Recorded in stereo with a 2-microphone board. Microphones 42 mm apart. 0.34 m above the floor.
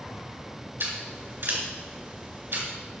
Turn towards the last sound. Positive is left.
turn(degrees=-65)  # may be behind; listen again after turning